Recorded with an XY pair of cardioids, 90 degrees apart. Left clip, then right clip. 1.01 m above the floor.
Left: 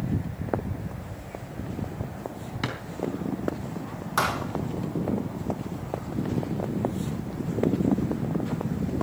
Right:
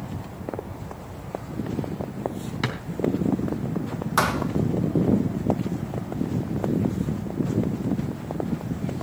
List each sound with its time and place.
2.6 s a drawer: 20° right, 3 m
4.2 s a thud: 20° right, 4.5 m